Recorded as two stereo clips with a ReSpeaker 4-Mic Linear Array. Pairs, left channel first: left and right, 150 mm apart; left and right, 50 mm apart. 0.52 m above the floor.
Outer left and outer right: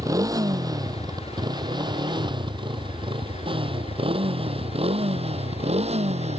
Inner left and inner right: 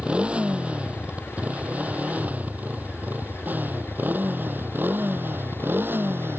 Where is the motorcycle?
20° right (ahead or behind); by 6.4 s 45° right (ahead or behind).